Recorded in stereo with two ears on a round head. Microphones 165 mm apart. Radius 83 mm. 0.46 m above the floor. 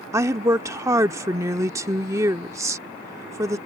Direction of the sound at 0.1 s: 15° right (ahead or behind).